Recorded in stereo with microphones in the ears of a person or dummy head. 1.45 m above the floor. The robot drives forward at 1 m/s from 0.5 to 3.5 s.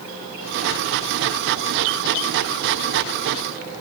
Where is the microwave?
No microwave in this recording.